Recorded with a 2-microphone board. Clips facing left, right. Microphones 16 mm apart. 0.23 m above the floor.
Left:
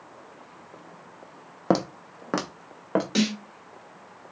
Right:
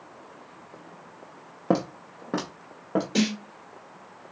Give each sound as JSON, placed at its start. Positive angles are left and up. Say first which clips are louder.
{"t": 1.7, "sound": "footsteps", "louder": "left 1 dB", "side_deg": 50, "distance_m": 0.6}
{"t": 3.1, "sound": "a snare drum", "louder": "right 1 dB", "side_deg": 35, "distance_m": 2.5}